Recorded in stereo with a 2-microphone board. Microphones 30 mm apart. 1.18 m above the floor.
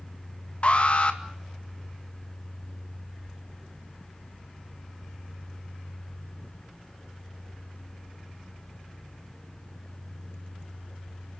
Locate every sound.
0.6 s an alarm: 45° left (ahead or behind), 2 m